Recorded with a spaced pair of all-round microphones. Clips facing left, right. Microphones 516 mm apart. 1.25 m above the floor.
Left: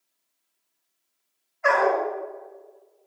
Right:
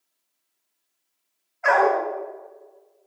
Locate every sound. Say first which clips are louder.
1.6 s a dog barking: right 1 dB; 10° right (ahead or behind), 3 m